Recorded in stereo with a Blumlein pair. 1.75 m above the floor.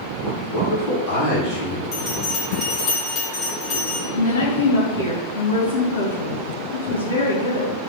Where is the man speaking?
30° left, 3.5 m.